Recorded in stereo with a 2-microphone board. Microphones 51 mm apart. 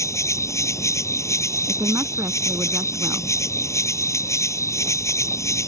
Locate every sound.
0.0 s an insect: 75° left (ahead or behind)
1.7 s a woman speaking: 50° right (ahead or behind)